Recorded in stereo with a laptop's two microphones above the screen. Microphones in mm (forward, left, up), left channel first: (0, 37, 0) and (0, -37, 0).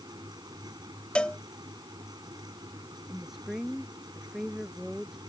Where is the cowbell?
15° left (ahead or behind).